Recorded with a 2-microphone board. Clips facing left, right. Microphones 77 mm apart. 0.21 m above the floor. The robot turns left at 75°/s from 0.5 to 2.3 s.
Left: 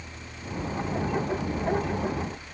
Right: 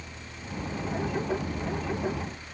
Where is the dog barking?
No dog barking in this recording.